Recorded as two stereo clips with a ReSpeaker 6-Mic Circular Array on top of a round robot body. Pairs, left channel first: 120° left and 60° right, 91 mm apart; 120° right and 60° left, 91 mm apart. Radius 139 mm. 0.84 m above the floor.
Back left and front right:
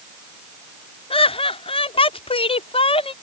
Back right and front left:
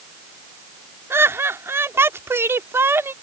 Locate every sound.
1.1 s laughter: 125° left